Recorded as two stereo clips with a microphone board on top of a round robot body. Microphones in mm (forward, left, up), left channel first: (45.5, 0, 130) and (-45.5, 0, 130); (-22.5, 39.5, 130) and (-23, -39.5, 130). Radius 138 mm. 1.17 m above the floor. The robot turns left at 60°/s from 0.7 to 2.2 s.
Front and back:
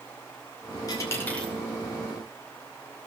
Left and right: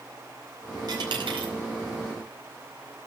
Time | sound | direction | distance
0.9 | a dropped coin | 50° right | 4.5 m